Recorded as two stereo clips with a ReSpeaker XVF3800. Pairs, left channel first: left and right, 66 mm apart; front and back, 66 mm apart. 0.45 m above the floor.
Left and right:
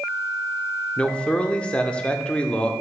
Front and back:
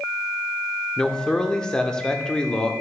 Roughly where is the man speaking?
Ahead left.